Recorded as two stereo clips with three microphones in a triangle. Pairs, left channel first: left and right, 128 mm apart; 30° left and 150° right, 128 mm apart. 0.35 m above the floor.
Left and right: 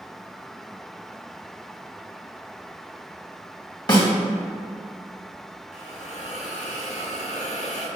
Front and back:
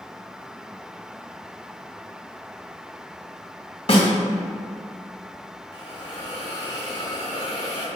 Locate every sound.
3.9 s a snare drum: 45° left, 2 m
5.7 s a hiss: 80° left, 2.5 m